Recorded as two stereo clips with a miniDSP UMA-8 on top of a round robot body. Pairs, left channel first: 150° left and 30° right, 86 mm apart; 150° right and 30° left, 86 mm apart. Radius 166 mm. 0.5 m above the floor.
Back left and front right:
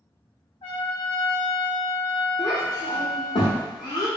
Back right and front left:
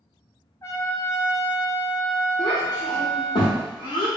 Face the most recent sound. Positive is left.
turn(degrees=180)